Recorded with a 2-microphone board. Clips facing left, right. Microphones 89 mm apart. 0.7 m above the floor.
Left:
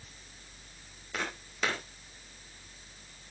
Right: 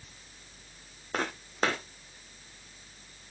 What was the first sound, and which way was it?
Footsteps, 45° right (ahead or behind).